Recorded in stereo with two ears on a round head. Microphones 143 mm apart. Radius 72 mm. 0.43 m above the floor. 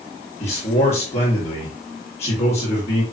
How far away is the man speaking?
About 8 m.